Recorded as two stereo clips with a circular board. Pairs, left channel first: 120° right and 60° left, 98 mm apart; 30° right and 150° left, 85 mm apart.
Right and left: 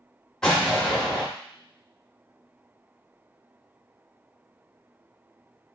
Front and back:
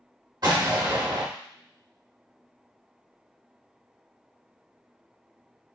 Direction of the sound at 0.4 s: 160° left.